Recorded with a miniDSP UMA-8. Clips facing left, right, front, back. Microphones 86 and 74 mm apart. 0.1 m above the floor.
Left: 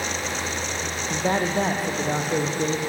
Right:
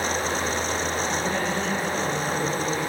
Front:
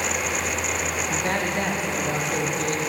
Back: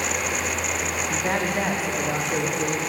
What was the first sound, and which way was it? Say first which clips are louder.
A man speaking: left 2 dB, back 1 dB; 95° left.